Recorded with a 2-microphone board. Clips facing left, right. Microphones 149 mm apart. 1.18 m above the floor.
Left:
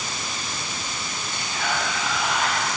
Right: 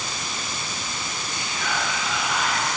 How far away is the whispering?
About 8.5 m.